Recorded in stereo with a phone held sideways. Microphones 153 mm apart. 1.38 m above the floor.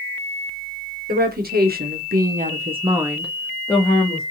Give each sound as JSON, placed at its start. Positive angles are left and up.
{"t": 1.1, "sound": "a woman speaking", "side_deg": -85, "distance_m": 1.0}